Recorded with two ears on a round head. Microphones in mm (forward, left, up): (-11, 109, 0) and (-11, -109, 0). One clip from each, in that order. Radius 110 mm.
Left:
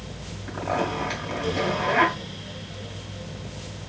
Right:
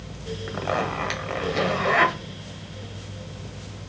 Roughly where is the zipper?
Right.